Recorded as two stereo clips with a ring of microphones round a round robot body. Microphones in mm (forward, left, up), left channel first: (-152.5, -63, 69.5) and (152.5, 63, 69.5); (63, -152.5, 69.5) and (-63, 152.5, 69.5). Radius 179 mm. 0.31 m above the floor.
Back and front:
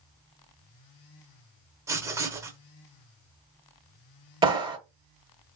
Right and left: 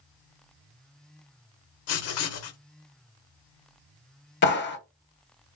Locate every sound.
1.9 s writing: 55° right, 0.7 m
4.4 s a clap: 45° right, 1.0 m